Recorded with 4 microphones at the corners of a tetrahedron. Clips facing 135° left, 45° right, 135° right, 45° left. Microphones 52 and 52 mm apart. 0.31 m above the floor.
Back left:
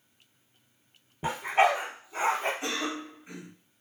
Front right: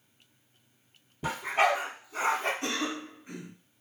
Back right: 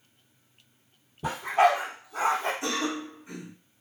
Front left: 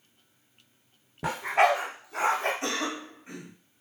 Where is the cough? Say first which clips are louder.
Even, back right 1 dB; 60° left, 1.7 m.